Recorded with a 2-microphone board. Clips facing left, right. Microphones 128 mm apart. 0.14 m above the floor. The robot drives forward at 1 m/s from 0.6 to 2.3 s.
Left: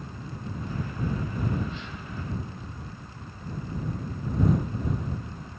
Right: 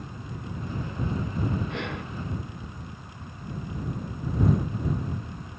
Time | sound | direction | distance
1.7 | breathing | 65° right (ahead or behind) | ?